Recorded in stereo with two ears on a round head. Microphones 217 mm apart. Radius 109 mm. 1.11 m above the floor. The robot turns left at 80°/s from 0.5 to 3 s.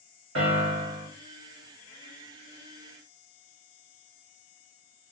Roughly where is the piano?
Behind right.